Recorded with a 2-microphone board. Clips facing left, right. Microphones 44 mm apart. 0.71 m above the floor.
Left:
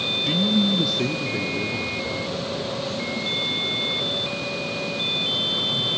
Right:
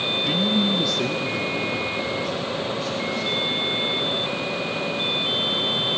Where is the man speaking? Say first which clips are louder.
Left 2 dB; 10° right (ahead or behind), 0.5 m; by 5.9 s 20° left (ahead or behind), 5 m.